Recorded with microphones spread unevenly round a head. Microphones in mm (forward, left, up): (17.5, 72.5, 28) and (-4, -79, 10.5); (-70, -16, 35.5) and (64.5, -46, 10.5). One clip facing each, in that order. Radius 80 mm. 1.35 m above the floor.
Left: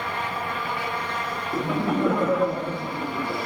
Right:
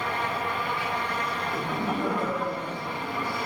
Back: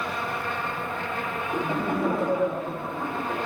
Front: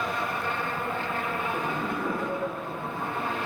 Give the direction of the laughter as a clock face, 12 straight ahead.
8 o'clock.